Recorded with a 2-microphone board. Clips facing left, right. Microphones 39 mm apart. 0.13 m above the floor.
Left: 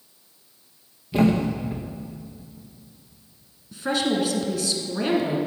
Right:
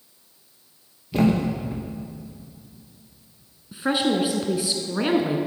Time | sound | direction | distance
1.1 | a thud | 5° left (ahead or behind) | 1.5 m
3.7 | a woman speaking | 20° right (ahead or behind) | 1.1 m